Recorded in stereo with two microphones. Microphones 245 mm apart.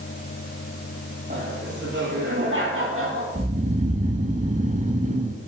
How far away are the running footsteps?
I don't hear running footsteps.